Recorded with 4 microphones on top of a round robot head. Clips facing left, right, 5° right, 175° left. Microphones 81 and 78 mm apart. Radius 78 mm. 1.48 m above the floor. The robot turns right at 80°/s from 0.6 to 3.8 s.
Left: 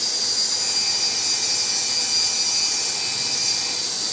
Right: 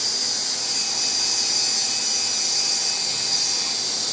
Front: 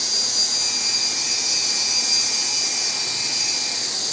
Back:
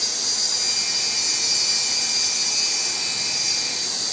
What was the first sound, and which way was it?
An insect, 25° left.